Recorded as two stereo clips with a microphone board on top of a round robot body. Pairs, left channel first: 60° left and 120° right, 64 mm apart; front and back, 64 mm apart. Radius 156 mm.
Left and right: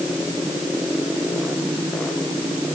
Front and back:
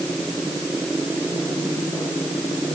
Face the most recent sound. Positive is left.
No sound to turn to.